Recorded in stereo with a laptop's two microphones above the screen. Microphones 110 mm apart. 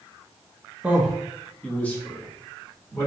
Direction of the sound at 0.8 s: 10° right (ahead or behind).